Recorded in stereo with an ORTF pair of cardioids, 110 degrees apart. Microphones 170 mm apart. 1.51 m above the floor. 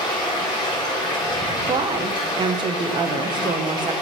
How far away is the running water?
About 3.5 m.